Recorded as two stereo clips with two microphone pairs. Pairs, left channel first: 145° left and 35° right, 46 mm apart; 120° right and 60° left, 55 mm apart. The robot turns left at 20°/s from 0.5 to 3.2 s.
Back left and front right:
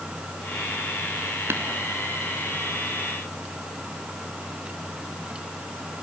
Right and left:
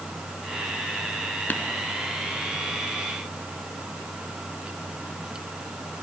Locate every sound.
1.5 s tapping: 65° right, 1.4 m